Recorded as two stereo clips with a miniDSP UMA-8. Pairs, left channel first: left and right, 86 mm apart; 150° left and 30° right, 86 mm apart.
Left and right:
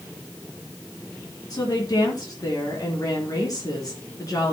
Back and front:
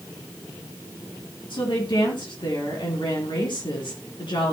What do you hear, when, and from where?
1.5 s a woman speaking: 130° left, 4.5 m